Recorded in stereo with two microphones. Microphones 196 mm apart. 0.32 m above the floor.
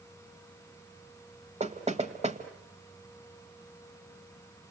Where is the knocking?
35° right (ahead or behind), 1.7 m.